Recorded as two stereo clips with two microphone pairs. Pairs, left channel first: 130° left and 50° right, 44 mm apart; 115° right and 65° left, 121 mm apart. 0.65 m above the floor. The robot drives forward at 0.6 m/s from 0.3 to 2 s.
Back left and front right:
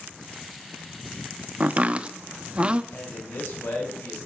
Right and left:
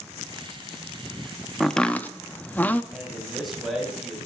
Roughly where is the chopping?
Ahead right.